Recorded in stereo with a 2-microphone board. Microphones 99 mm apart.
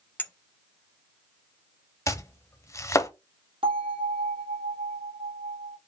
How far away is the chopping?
About 0.5 m.